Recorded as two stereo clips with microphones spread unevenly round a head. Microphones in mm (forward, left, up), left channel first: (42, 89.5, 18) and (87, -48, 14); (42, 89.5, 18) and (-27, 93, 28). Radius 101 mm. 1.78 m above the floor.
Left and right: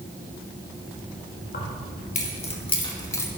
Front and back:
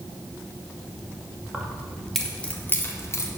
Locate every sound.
1.5 s keys jangling: 105° left, 2 m; by 3.3 s 40° left, 2.0 m